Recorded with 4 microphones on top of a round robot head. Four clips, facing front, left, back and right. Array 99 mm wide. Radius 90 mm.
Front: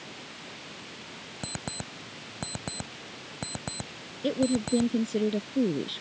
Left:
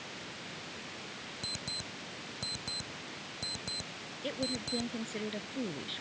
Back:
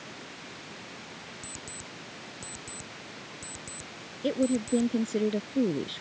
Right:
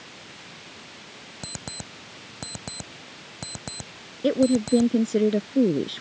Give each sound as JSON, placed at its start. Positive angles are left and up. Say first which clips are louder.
{"t": 1.4, "sound": "an alarm clock", "louder": "right 9 dB, front 6 dB", "azimuth_deg": -25}
{"t": 4.2, "sound": "a woman speaking", "louder": "right 17 dB, even", "azimuth_deg": -95}